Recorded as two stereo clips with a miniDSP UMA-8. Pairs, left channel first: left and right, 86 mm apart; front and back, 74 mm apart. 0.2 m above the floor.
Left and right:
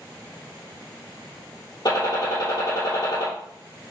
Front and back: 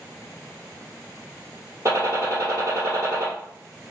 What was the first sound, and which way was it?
A gunshot, 130° left.